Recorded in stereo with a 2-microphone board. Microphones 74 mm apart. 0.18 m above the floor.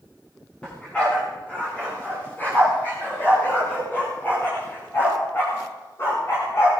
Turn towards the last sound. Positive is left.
turn(degrees=40)  # may be behind; listen again after turning